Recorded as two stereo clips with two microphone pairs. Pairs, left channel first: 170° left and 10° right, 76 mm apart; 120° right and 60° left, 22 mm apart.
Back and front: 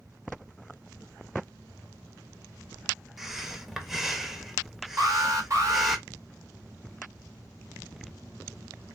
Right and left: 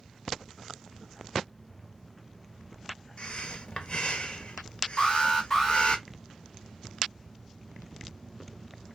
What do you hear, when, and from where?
3.2 s breathing: 100° right, 0.6 m
5.0 s an alarm: 55° right, 1.8 m